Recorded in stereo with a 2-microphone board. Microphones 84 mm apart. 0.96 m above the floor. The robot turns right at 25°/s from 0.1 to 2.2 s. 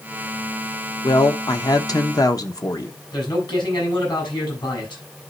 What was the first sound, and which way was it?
A woman speaking, 55° left (ahead or behind).